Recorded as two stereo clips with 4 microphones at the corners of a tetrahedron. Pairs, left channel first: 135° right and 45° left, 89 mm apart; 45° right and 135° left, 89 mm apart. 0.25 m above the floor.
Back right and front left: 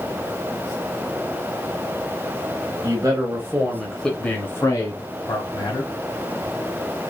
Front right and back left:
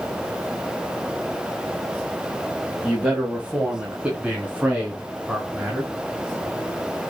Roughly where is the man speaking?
Ahead left.